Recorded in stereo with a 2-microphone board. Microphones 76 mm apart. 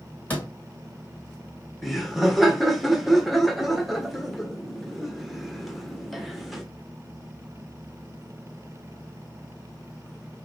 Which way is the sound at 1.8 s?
Centre (ahead or behind).